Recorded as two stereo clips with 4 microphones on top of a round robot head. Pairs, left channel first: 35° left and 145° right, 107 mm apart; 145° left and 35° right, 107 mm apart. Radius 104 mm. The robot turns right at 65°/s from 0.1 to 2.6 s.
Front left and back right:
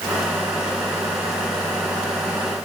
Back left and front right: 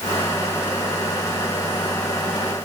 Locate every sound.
Only background noise.